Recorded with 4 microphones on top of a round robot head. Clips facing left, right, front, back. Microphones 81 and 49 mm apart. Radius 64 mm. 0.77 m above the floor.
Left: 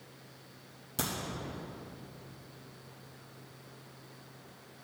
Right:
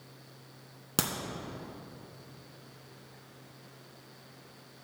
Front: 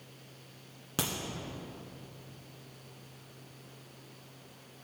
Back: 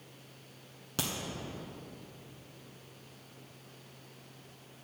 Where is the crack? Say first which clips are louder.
Right 4 dB, front 2 dB; 75° right, 1.5 m.